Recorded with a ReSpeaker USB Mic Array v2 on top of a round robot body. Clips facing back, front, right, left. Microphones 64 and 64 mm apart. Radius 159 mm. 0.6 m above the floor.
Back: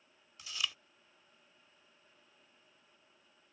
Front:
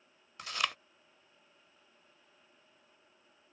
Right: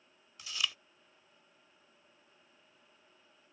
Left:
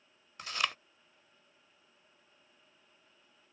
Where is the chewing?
45° left.